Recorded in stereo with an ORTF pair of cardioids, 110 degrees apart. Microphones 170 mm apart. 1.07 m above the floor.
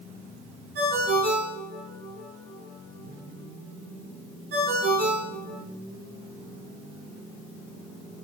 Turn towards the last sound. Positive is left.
turn(degrees=-70)